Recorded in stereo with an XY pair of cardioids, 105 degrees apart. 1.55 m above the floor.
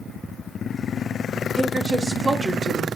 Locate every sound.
1.6 s a woman speaking: 25° right, 1.0 m